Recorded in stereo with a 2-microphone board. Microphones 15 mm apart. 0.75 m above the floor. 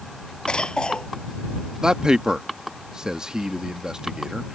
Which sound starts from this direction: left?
A cough, at 0.5 s.